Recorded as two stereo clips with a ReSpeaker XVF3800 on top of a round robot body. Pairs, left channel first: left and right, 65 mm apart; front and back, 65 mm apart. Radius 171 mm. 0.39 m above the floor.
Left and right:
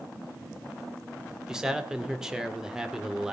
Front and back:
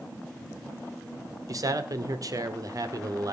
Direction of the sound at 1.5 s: 170° right.